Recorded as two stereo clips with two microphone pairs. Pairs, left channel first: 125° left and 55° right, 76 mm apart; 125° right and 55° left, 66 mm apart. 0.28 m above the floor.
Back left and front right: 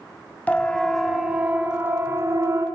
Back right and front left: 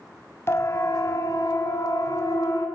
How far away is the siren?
About 2 m.